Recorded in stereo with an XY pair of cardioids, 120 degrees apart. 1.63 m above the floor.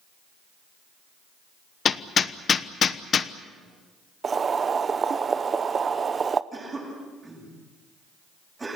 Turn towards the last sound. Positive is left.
turn(degrees=-20)